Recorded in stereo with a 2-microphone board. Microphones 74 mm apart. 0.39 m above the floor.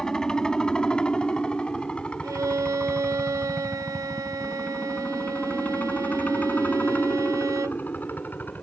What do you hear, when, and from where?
0.0 s a helicopter: 10° left (ahead or behind); by 8.6 s 25° left (ahead or behind)
2.2 s a violin: 50° right (ahead or behind)